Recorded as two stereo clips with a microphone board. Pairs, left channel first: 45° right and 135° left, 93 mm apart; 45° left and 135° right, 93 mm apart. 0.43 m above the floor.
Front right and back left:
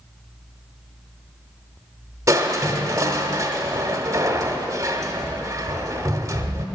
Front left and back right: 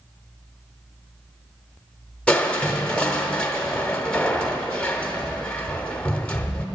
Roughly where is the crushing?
Behind left.